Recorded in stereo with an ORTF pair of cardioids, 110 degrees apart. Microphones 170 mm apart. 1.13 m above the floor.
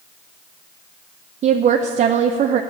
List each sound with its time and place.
1.4 s a woman speaking: 45° right, 0.6 m